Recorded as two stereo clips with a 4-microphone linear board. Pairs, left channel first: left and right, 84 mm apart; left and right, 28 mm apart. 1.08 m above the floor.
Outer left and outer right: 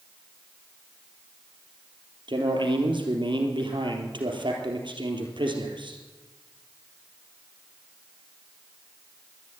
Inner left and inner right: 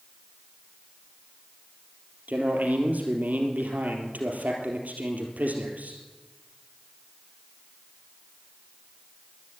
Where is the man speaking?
70° right (ahead or behind), 3.5 m.